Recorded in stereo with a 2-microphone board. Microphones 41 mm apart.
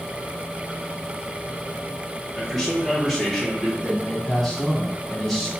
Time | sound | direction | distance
2.3 | a man speaking | centre (ahead or behind) | 2 m
3.8 | a man speaking | 5° left (ahead or behind) | 1.5 m